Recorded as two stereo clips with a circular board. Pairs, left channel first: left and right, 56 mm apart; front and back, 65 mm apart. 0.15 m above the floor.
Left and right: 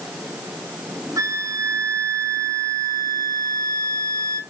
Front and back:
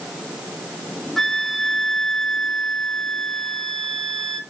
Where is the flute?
85° right, 0.7 m.